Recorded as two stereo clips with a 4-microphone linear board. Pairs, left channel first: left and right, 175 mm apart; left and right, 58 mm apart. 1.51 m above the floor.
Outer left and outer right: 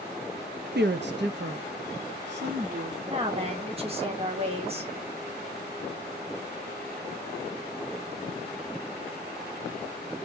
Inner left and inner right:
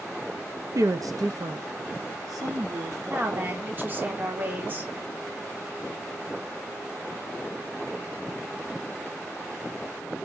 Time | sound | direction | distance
0.8 | a woman speaking | 70° right (ahead or behind) | 0.6 m
3.1 | a woman speaking | 35° right (ahead or behind) | 1.5 m